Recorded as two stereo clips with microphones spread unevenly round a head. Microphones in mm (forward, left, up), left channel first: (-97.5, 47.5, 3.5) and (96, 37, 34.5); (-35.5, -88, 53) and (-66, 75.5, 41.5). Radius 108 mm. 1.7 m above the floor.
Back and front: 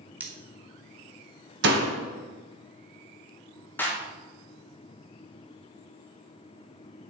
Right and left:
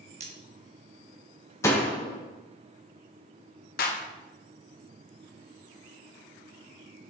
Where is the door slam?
5° right, 1.4 m.